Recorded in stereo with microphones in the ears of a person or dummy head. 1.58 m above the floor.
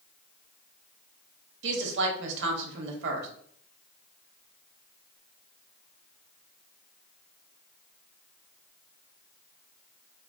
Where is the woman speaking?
70° right (ahead or behind), 0.8 m.